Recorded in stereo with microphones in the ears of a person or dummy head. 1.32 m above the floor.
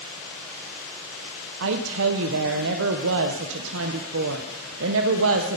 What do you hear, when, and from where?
1.6 s a woman speaking: 80° right, 0.7 m